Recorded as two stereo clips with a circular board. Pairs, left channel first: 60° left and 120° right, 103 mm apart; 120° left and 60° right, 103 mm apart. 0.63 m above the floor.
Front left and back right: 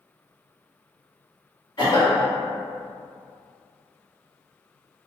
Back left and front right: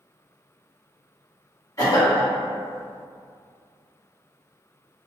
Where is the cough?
75° left, 1.6 m.